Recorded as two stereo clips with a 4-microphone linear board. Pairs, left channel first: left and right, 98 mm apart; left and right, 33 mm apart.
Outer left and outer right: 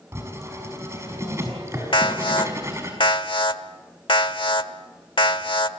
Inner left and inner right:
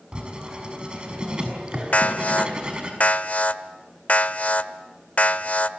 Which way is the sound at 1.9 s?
55° left (ahead or behind).